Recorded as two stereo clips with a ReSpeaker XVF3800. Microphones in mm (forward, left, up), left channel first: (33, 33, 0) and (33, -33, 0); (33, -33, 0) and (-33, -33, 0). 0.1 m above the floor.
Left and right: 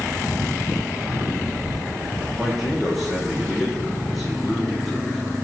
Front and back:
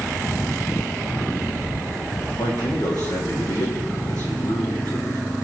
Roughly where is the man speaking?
Ahead.